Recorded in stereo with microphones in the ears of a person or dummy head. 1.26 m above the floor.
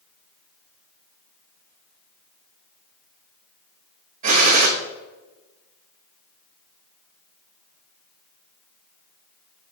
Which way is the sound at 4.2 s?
45° right (ahead or behind).